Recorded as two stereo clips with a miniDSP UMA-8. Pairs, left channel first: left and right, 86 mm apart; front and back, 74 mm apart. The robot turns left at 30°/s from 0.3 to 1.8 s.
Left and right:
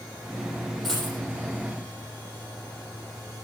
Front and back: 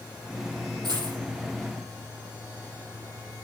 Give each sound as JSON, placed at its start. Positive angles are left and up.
{"t": 0.8, "sound": "a dropped coin", "azimuth_deg": 175, "distance_m": 5.0}